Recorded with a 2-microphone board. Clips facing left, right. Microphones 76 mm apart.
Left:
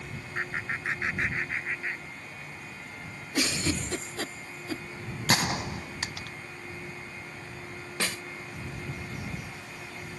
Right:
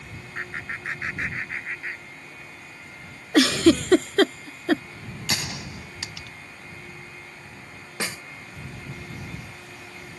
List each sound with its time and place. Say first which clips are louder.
0.3 s laughter: even; 5° left (ahead or behind); by 2.5 s 5° right (ahead or behind)
3.3 s a giggle: right 13 dB; 80° right
5.3 s a gunshot: left 5 dB; 45° left (ahead or behind)
8.0 s a snare drum: right 1 dB; 15° right (ahead or behind)